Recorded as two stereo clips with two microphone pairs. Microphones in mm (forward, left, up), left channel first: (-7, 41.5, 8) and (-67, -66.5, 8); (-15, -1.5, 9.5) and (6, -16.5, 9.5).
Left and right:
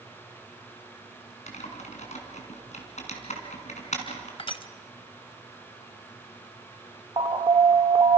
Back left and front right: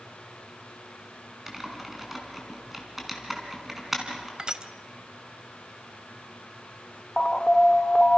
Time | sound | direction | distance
1.5 | typing on a keyboard | 40° left | 3.5 m
4.4 | crushing | 15° left | 1.1 m
7.2 | an alarm | 160° right | 1.1 m